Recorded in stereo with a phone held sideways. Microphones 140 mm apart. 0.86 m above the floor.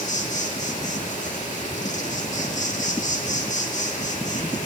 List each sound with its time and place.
0.0 s an insect: 60° left (ahead or behind), 2 m